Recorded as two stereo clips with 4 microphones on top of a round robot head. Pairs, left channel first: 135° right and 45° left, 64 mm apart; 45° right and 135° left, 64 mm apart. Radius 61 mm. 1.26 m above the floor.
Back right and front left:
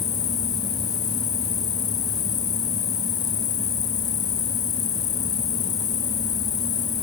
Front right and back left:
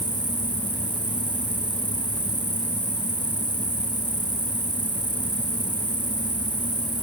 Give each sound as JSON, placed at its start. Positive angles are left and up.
{"t": 0.0, "sound": "an insect", "azimuth_deg": -160}